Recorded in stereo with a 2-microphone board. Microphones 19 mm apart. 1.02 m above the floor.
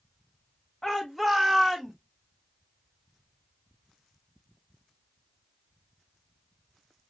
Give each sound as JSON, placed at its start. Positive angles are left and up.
{"t": 0.8, "sound": "a shout", "side_deg": 25, "distance_m": 1.2}